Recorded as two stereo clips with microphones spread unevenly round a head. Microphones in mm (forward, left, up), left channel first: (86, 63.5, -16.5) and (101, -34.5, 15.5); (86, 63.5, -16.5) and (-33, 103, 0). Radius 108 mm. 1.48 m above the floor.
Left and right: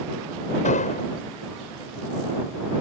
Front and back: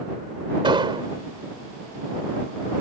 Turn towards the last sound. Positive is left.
turn(degrees=110)